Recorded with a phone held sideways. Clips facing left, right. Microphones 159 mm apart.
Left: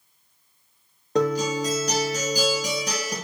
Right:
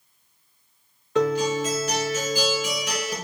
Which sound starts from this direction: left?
A guitar, at 1.1 s.